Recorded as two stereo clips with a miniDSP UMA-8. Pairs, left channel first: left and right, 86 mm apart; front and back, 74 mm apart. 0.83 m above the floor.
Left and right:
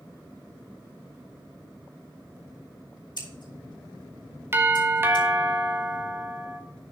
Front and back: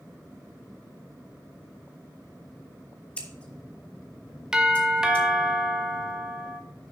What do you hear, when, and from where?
3.2 s scissors: 70° left, 2 m
4.5 s a doorbell: 110° right, 1.1 m